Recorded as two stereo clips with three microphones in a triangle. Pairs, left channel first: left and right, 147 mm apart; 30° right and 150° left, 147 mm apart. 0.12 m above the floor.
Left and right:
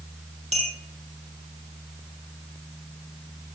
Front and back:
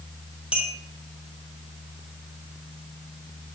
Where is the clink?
130° right, 3 m.